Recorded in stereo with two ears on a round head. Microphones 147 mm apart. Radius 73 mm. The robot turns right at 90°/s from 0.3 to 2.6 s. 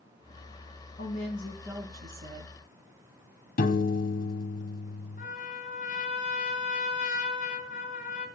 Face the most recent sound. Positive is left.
turn(degrees=50)  # may be behind; listen again after turning